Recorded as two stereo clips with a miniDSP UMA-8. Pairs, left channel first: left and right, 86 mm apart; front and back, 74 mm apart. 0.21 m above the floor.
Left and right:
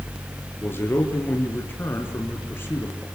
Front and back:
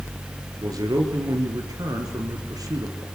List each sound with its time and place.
0.6 s a man speaking: 155° left, 3.5 m